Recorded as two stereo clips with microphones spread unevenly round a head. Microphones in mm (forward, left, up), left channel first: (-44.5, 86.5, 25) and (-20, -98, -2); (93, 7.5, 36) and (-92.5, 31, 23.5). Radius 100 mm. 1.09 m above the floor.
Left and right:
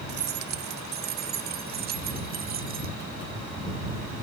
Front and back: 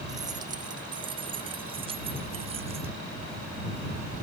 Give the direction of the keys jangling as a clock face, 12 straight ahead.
4 o'clock.